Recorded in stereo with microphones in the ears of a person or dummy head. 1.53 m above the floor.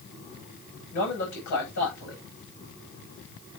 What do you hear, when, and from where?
0.9 s a man speaking: 55° left (ahead or behind), 10 m